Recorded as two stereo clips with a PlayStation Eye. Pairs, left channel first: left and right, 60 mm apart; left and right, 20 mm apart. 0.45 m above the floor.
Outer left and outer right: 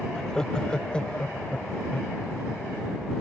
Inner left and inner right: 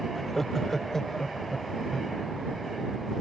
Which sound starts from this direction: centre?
Laughter, at 0.1 s.